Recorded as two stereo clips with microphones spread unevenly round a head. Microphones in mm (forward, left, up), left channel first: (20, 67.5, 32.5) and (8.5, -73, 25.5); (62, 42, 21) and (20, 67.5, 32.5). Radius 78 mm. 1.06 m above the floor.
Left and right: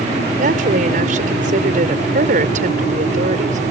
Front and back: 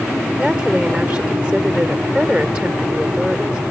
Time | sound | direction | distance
0.4 | a woman speaking | 135° right | ?